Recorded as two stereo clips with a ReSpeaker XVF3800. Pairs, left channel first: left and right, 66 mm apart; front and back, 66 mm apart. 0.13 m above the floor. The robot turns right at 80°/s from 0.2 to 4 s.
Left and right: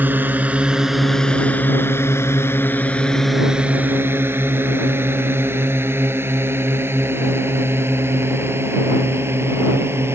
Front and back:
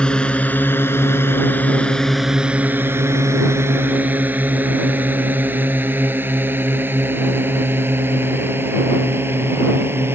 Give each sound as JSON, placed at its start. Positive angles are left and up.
{"t": 0.0, "sound": "a drone", "azimuth_deg": -60}